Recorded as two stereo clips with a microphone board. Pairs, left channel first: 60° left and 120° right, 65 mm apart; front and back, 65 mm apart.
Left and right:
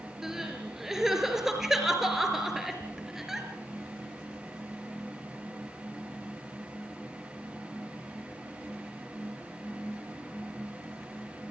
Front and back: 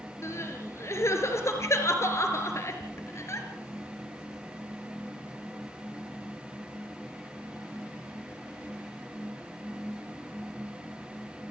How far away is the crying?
About 4 m.